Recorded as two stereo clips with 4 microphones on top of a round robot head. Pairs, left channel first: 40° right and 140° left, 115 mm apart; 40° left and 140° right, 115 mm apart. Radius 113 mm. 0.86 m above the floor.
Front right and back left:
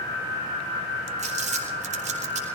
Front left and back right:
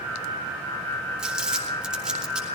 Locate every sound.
1.2 s crumpling: 135° left, 3 m